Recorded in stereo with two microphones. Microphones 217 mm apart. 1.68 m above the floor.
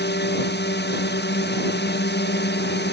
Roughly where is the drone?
Left.